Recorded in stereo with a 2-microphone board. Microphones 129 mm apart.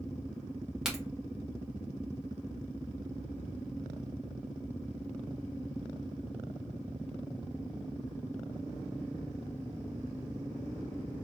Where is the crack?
5° right (ahead or behind), 1.3 m.